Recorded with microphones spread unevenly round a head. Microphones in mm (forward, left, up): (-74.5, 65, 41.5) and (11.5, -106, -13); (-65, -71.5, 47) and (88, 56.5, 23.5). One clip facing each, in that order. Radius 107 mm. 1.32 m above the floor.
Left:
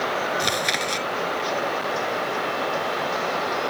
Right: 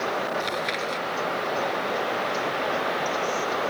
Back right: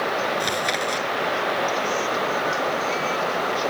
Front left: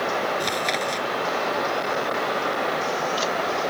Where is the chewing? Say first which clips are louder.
Left 2 dB, back right 1 dB; 135° left.